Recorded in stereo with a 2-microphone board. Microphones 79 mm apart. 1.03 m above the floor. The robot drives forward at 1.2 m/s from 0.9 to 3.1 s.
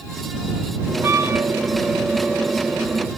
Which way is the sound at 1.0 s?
40° right (ahead or behind).